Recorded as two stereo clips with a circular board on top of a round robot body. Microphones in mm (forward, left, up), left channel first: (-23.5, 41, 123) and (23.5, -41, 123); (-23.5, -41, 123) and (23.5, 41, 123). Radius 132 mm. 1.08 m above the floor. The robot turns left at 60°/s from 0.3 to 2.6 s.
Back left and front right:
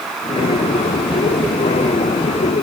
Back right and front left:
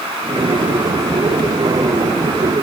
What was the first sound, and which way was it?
Only background noise.